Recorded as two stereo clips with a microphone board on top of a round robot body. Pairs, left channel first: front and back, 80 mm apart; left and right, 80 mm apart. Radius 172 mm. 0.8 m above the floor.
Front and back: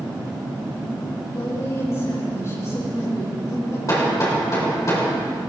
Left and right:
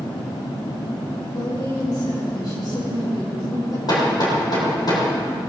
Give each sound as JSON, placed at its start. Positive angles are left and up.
{"t": 1.3, "sound": "a woman speaking", "azimuth_deg": 55, "distance_m": 5.0}
{"t": 3.9, "sound": "hammering", "azimuth_deg": 50, "distance_m": 3.5}